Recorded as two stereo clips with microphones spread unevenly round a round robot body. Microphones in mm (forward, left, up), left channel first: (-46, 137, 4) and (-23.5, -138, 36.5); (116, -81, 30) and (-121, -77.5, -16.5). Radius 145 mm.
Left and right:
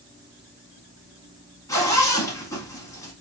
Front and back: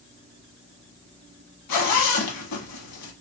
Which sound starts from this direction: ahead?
A zipper, at 1.7 s.